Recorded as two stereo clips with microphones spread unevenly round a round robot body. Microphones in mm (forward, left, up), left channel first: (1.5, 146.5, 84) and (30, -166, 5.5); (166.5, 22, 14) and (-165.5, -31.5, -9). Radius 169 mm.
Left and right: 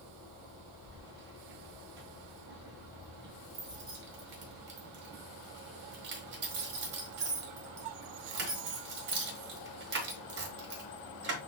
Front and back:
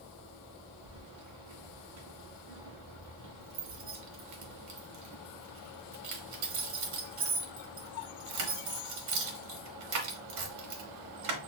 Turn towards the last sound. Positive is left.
turn(degrees=-135)